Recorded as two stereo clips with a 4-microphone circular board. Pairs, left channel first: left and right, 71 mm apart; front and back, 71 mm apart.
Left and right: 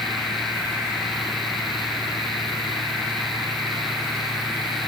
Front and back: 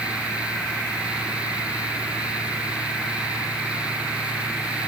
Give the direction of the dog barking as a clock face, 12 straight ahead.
No dog barking in this recording.